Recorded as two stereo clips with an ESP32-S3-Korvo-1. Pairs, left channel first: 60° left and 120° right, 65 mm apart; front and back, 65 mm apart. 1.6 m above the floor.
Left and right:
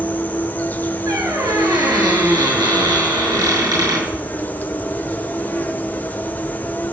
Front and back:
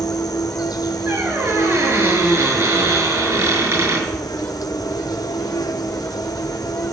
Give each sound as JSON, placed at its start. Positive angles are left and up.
{"t": 0.0, "sound": "an insect", "azimuth_deg": -5, "distance_m": 0.8}
{"t": 1.1, "sound": "a squeak", "azimuth_deg": -130, "distance_m": 7.5}